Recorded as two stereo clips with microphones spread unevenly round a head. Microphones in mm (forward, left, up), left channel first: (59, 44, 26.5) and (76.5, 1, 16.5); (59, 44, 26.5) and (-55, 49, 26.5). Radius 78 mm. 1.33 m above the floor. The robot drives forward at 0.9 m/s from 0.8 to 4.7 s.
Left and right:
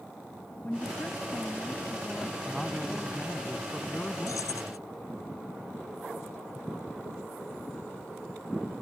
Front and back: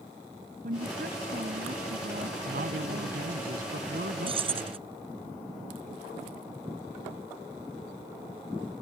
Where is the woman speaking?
170° right; by 3.5 s 175° right.